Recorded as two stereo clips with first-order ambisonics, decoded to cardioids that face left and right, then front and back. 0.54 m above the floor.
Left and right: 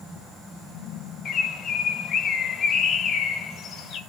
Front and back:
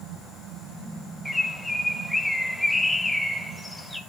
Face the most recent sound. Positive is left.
turn(degrees=85)